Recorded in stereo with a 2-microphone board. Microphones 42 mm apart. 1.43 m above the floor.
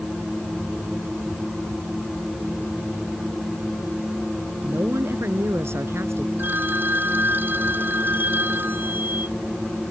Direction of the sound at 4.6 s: 85° right.